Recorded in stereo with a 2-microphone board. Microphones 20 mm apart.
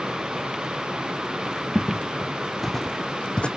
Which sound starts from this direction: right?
Footsteps, at 1.8 s.